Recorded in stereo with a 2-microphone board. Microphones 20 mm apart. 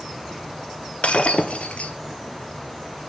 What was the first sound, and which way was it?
Breaking glass, 80° left.